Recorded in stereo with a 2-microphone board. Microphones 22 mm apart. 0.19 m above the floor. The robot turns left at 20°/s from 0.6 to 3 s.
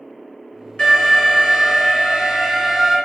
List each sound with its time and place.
0.8 s an alarm: 105° left, 1.7 m; by 3.0 s 60° left, 1.7 m